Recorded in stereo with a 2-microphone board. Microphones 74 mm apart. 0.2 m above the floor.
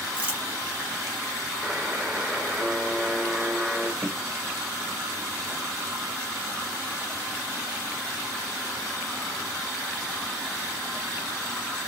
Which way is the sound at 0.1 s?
20° right (ahead or behind).